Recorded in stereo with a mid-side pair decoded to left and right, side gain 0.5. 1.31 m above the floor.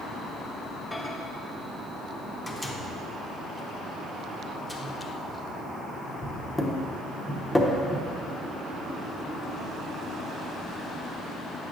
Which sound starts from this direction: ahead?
A microwave, at 0.9 s.